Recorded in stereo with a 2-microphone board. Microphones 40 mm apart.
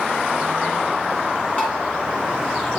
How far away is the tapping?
About 2 m.